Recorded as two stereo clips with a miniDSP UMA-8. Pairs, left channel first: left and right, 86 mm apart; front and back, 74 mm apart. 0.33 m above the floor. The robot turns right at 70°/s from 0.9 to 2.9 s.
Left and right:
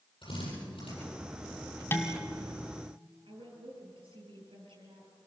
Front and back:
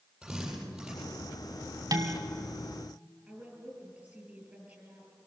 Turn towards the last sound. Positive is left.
turn(degrees=-110)